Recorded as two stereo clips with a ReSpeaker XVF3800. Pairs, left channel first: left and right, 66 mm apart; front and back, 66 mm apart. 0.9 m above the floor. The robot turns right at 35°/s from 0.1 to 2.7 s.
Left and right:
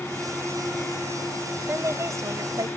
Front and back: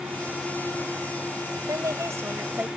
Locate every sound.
1.7 s a woman speaking: 145° right; by 2.7 s 110° right